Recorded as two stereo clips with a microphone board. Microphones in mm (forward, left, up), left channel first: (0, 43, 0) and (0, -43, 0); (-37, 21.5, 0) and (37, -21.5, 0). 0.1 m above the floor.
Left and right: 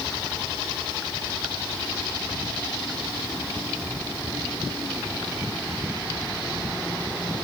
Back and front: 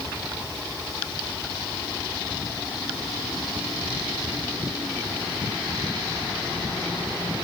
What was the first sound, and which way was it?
Only background noise.